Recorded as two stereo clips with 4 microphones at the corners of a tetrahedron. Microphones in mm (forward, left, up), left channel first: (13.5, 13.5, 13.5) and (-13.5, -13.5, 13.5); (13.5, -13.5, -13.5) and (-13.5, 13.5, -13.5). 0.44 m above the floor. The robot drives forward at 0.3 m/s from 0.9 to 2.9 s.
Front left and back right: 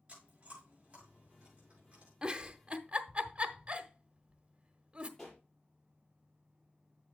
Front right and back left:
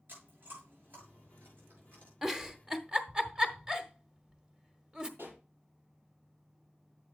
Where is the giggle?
165° right, 0.7 m; by 5.1 s 170° right, 0.8 m.